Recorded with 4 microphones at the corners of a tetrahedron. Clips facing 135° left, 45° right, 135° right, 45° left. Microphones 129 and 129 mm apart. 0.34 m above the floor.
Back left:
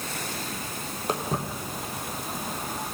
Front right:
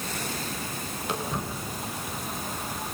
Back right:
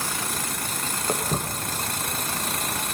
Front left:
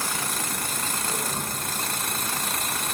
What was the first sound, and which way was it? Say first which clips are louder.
Footsteps: back left 3 dB, back right 4 dB; 175° right.